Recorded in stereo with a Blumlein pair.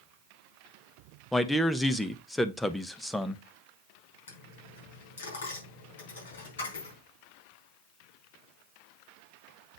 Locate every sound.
1.3 s a man speaking: 5° left, 1.0 m
4.3 s a dropped coin: 65° left, 5 m